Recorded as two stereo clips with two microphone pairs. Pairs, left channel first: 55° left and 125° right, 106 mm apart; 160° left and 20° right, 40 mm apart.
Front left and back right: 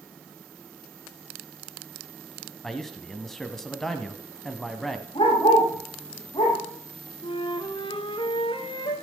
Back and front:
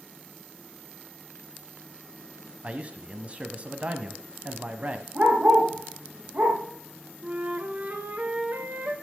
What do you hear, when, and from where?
2.6 s a man speaking: 25° right, 1.1 m
5.2 s a dog barking: 20° left, 5 m
7.2 s a flute: 25° left, 1.5 m